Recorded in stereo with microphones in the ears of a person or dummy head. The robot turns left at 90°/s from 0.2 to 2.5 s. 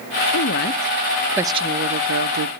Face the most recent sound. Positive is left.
turn(degrees=-110)